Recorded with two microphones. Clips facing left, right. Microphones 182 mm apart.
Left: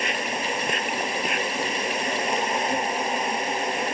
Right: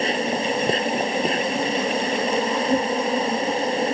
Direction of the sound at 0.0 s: 35° right (ahead or behind).